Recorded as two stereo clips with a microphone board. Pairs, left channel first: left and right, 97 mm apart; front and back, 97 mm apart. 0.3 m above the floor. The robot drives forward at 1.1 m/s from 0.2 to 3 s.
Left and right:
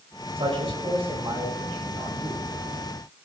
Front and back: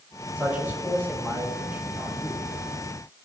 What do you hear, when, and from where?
0.4 s a man speaking: 105° right, 8.5 m; by 2.4 s 120° right, 9.5 m